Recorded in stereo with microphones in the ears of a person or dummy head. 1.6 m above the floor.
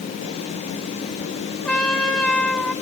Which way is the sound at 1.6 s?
15° left (ahead or behind).